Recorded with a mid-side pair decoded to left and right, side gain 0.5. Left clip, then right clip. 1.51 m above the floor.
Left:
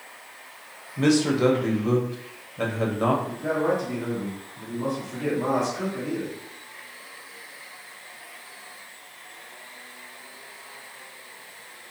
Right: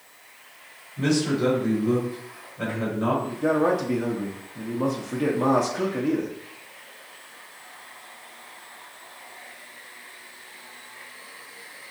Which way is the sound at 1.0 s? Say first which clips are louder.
Left 3 dB; 50° left.